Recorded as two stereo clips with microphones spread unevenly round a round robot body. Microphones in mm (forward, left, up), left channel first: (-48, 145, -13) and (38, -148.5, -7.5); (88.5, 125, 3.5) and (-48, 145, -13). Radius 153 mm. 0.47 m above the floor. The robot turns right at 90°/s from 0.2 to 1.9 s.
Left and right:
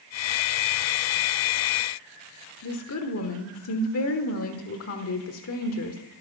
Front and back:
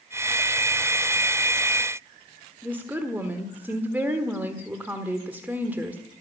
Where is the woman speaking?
105° left, 1.4 m.